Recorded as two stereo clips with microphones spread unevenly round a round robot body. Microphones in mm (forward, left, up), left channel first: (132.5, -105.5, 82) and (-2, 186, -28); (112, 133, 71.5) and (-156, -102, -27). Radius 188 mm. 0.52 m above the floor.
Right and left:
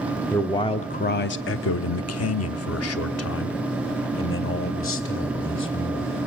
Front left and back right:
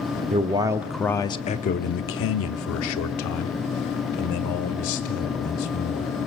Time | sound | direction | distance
0.3 | a man speaking | 170° right | 0.9 m